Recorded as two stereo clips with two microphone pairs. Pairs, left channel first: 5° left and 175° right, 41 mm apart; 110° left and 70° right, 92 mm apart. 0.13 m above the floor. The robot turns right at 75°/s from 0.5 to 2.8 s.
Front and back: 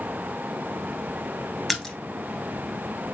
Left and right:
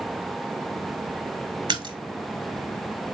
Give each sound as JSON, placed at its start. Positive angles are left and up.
{"t": 1.7, "sound": "a splash", "azimuth_deg": -90, "distance_m": 0.8}